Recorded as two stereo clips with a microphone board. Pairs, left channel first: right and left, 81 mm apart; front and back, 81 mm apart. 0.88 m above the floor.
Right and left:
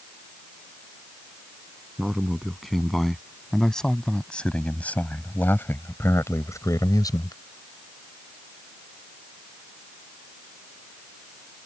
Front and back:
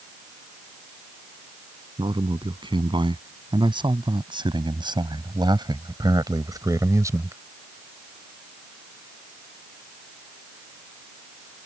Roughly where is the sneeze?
I don't hear a sneeze.